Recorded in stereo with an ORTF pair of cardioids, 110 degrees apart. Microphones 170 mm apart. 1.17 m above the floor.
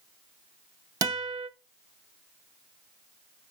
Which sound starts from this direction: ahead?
A guitar, at 1.0 s.